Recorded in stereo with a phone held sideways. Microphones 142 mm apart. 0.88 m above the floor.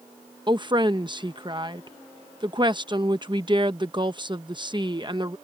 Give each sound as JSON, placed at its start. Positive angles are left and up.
{"t": 0.5, "sound": "a woman speaking", "side_deg": -30}